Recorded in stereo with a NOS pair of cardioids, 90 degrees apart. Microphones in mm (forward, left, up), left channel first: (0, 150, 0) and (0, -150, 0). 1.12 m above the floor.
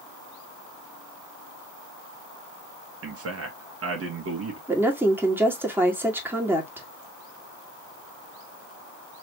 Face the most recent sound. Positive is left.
turn(degrees=-5)